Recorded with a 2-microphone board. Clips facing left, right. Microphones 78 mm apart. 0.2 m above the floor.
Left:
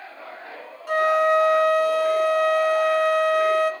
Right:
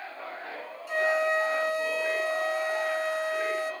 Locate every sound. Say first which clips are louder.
0.9 s a flute: left 7 dB; 60° left (ahead or behind), 0.7 m